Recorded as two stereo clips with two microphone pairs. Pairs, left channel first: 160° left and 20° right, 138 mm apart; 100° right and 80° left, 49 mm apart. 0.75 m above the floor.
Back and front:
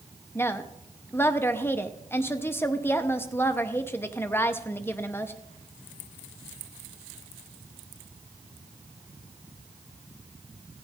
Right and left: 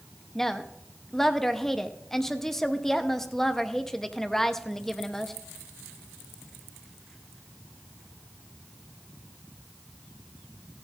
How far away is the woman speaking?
About 0.8 m.